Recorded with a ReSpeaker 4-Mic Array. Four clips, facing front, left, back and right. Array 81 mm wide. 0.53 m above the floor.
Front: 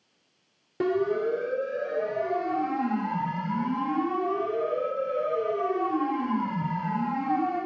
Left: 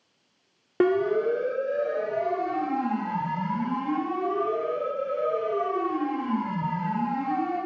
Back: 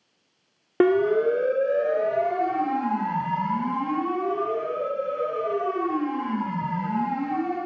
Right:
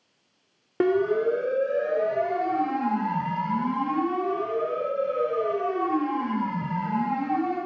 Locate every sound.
0.8 s a siren: 175° left, 2 m; by 7.6 s 145° right, 11 m